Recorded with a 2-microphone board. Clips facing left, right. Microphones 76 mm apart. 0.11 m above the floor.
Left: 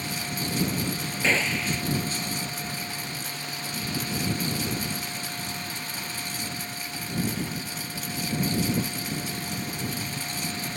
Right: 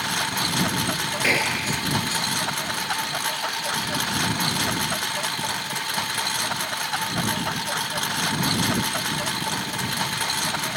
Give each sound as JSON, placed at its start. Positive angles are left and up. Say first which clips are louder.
{"t": 0.0, "sound": "a lawn mower", "louder": "right 6 dB", "side_deg": -90}
{"t": 1.2, "sound": "a gunshot", "louder": "right 1 dB", "side_deg": -10}